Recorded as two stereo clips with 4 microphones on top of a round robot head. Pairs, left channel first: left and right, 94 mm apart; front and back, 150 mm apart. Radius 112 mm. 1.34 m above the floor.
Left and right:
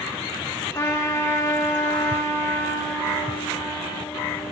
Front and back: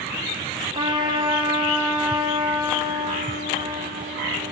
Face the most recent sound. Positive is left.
turn(degrees=135)